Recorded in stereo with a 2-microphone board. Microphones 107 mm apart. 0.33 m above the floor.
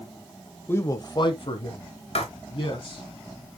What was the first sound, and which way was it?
A man speaking, 20° left (ahead or behind).